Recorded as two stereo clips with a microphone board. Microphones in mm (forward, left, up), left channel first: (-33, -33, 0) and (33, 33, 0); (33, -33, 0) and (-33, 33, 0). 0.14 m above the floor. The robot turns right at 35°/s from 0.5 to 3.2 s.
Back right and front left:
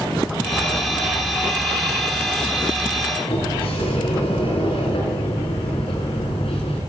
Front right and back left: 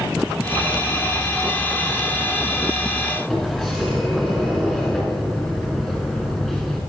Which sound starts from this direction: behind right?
A sliding door, at 3.3 s.